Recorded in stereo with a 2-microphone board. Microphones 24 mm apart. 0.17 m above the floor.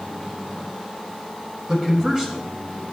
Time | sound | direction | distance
1.7 | a man speaking | 35° right (ahead or behind) | 1.7 m